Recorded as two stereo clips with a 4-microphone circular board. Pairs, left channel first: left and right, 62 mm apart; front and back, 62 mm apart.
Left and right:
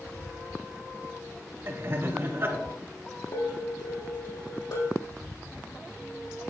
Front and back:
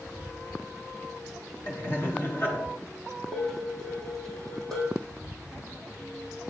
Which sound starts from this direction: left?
Dishes clattering, at 3.3 s.